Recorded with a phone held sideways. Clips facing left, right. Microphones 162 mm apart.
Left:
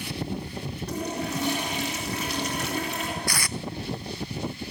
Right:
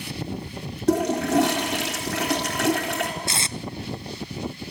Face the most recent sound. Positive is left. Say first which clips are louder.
# even
turn(degrees=-25)  # may be behind; listen again after turning